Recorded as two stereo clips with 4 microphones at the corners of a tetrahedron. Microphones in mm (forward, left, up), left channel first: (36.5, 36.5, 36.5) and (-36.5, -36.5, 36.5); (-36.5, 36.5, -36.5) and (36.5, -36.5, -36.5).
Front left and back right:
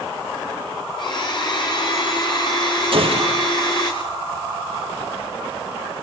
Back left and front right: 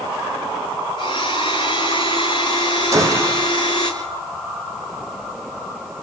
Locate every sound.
1.0 s a blender: 90° left, 6.5 m
2.9 s a gunshot: 105° right, 5 m